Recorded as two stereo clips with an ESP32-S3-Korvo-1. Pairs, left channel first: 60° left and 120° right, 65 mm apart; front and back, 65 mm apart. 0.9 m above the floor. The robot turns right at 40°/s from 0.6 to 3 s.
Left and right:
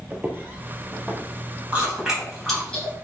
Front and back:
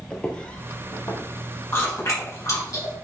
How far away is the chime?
No chime in this recording.